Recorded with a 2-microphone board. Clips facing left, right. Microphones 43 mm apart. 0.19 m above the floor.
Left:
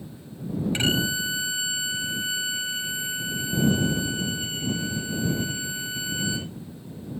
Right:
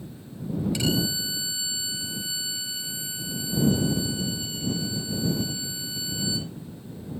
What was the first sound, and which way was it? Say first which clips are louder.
A violin: left 4 dB; 45° left (ahead or behind).